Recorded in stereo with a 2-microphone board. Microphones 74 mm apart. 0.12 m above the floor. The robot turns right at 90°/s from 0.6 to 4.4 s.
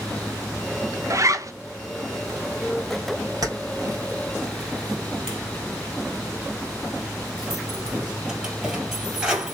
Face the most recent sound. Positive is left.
turn(degrees=-10)  # may be behind; listen again after turning